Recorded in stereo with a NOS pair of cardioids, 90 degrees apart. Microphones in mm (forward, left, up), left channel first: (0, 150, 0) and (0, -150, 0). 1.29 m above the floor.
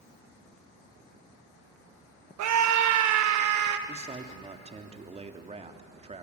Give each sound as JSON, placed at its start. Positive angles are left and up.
{"t": 2.4, "sound": "a scream", "azimuth_deg": -65, "distance_m": 1.2}
{"t": 3.9, "sound": "a man speaking", "azimuth_deg": -20, "distance_m": 2.5}